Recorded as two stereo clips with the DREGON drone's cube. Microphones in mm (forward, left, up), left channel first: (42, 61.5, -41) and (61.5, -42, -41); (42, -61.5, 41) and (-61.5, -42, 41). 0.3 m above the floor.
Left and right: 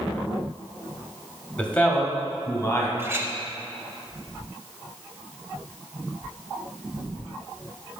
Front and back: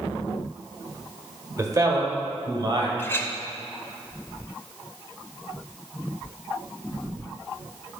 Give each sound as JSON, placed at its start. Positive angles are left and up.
{"t": 1.6, "sound": "a man speaking", "azimuth_deg": 170, "distance_m": 1.0}
{"t": 3.0, "sound": "a clink", "azimuth_deg": -55, "distance_m": 0.6}